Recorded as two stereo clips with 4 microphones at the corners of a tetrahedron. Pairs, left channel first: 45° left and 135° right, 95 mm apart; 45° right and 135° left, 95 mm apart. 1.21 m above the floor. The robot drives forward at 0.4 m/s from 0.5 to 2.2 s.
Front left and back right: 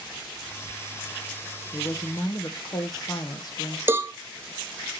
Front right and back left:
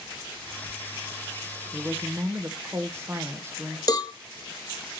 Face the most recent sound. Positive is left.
turn(degrees=-75)